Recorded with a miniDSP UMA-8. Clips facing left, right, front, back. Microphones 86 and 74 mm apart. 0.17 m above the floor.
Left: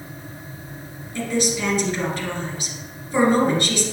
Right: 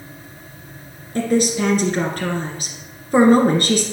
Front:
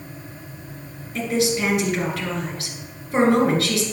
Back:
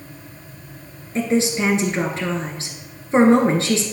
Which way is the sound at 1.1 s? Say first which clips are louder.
Right 5 dB, back 2 dB; 125° right.